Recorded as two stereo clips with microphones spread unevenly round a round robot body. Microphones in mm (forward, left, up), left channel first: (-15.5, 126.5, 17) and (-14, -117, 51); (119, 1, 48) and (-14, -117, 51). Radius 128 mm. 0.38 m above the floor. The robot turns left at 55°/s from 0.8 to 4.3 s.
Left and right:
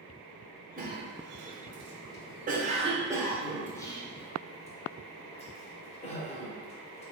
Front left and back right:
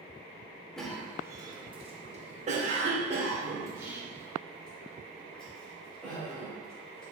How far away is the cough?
About 1.0 m.